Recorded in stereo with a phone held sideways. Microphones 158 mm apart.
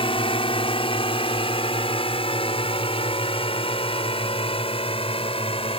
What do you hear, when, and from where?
0.0 s a drone: 35° left (ahead or behind)